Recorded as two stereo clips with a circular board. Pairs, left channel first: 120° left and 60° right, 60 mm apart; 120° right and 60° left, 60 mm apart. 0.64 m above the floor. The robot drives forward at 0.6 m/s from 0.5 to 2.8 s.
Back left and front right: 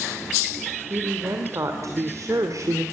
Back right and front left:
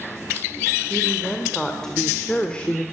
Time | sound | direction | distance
0.9 | a woman speaking | 30° right | 2.5 m